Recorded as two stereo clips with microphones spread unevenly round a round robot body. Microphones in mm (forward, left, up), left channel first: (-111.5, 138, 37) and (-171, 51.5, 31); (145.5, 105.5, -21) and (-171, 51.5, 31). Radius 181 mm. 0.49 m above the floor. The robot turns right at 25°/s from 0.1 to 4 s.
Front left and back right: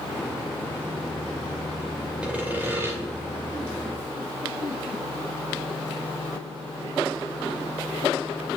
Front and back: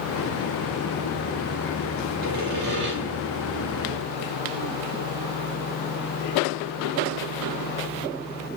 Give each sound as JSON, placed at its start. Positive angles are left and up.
{"t": 2.2, "sound": "sawing", "azimuth_deg": 160, "distance_m": 2.5}